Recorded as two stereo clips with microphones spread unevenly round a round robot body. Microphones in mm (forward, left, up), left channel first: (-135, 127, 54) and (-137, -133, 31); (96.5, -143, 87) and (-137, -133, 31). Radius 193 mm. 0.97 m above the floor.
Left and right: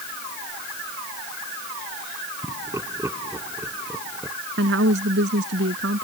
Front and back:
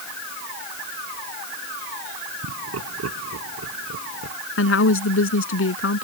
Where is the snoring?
I don't hear snoring.